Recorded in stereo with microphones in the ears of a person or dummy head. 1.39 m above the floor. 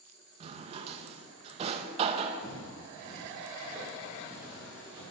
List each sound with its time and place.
0.4 s a drawer: 35° right (ahead or behind), 0.8 m
2.4 s footsteps: 25° left (ahead or behind), 4 m; by 5.0 s 10° right (ahead or behind), 4.5 m